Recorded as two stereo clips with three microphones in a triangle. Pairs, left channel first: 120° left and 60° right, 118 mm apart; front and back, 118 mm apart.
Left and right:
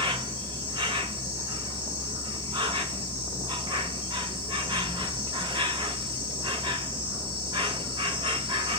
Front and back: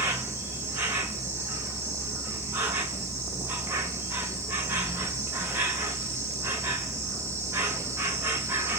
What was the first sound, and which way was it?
An insect, 110° right.